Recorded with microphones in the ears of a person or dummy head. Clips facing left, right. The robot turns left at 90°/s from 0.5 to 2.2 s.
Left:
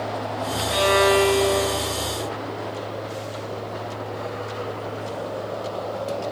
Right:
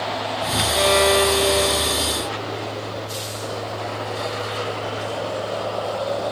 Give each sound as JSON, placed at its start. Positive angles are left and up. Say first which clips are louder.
{"t": 0.7, "sound": "a violin", "louder": "even", "azimuth_deg": 40, "distance_m": 4.5}